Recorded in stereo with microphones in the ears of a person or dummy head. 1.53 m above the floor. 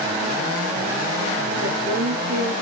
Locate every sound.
1.6 s a woman speaking: 65° right (ahead or behind), 0.9 m